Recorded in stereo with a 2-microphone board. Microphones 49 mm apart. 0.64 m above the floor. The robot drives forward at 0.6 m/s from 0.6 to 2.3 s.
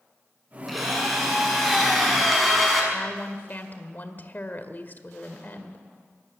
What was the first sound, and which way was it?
A drill, centre (ahead or behind).